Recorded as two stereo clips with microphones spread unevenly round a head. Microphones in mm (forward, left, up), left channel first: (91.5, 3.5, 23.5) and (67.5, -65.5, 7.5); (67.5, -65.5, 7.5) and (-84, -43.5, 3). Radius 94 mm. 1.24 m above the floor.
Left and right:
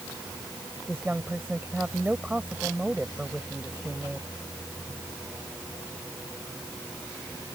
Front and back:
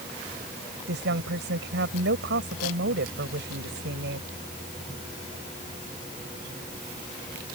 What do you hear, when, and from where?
0.9 s a woman speaking: 165° left